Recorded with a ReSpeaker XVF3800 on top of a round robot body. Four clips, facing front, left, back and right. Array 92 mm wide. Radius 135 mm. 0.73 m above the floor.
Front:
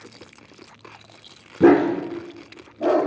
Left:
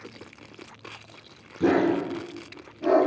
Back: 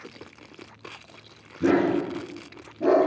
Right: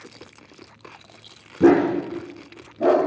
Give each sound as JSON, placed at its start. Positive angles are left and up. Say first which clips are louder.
{"t": 1.6, "sound": "a dog barking", "louder": "right 6 dB, front 6 dB", "azimuth_deg": -25, "distance_m": 0.8}